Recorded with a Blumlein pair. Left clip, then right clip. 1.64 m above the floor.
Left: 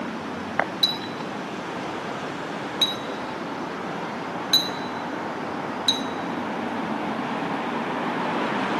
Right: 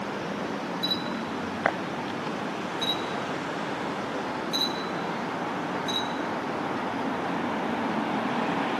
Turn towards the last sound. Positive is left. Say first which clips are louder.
# left 4 dB
turn(degrees=55)